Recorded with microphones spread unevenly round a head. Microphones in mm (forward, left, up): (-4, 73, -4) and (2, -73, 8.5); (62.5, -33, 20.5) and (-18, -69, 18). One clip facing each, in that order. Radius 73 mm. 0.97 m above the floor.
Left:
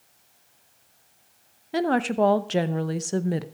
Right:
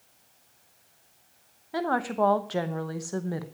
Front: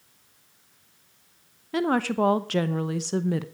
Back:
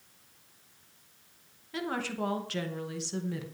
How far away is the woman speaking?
About 0.8 m.